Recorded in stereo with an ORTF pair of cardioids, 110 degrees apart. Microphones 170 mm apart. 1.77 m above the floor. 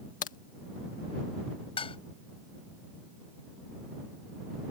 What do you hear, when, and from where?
0.2 s a crack: 55° left
1.8 s dishes clattering: 35° left